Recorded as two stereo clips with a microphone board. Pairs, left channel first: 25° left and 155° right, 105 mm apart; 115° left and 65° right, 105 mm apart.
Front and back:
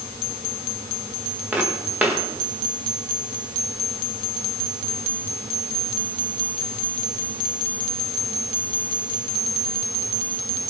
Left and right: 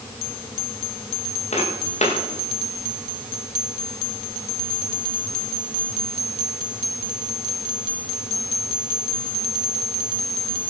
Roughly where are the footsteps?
Behind left.